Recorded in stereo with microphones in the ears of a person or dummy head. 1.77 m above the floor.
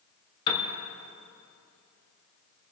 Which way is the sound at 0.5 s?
30° left (ahead or behind).